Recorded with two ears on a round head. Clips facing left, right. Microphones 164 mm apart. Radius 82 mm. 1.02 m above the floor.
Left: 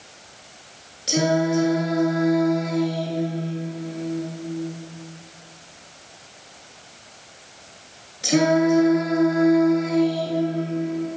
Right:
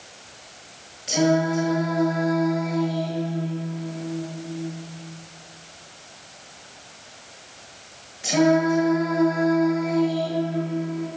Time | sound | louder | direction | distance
1.1 | singing | even | 50° left (ahead or behind) | 9 m